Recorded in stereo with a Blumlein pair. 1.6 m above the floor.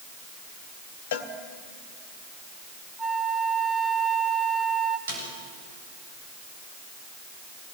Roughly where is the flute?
Ahead.